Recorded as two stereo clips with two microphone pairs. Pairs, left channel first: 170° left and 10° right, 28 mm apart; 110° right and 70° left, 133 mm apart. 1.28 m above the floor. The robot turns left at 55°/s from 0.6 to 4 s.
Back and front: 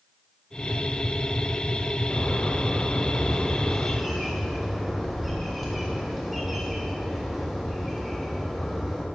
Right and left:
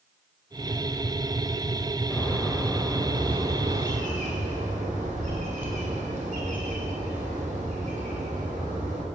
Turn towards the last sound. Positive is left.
turn(degrees=75)